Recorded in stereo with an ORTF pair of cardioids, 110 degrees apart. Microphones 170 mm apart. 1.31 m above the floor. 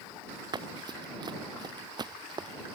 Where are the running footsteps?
25° right.